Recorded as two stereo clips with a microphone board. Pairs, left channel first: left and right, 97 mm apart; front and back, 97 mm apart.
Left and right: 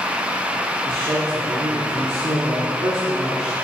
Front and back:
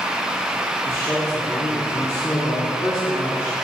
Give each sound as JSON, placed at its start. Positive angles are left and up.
{"t": 0.9, "sound": "a man speaking", "azimuth_deg": -60, "distance_m": 1.6}